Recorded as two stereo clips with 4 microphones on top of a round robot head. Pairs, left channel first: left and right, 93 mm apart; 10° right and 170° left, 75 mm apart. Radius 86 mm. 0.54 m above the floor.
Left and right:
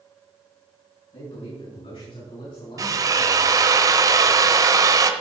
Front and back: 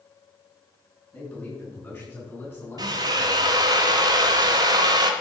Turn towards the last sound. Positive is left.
turn(degrees=-145)